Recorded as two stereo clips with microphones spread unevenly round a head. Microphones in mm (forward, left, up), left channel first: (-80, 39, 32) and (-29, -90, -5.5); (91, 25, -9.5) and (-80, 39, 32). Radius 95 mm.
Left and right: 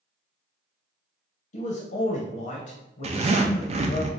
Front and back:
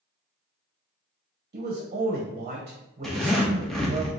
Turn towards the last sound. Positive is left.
turn(degrees=-85)